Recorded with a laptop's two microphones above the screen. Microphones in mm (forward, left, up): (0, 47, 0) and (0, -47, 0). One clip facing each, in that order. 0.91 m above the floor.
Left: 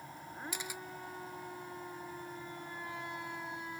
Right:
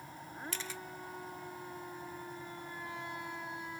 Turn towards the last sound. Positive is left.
turn(degrees=15)  # may be behind; listen again after turning